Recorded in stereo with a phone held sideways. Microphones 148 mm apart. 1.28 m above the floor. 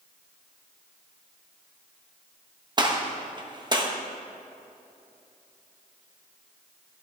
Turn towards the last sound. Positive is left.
turn(degrees=-30)  # may be behind; listen again after turning